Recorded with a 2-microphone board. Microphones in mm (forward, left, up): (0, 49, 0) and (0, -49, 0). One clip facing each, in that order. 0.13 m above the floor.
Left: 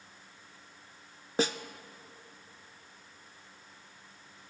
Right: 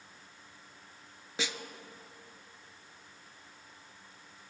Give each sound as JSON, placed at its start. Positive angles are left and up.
{"t": 1.4, "sound": "a snare drum", "side_deg": 45, "distance_m": 0.5}